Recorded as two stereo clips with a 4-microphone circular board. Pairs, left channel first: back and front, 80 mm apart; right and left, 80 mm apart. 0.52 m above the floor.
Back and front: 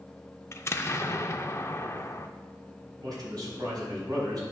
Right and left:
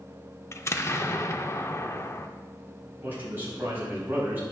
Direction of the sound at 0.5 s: 135° right.